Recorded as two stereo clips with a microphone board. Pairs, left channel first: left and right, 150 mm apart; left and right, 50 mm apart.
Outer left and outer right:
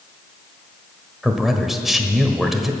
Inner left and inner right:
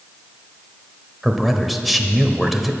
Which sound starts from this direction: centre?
A man speaking, at 1.2 s.